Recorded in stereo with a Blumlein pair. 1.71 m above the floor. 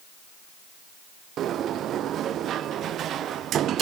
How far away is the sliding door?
About 0.7 m.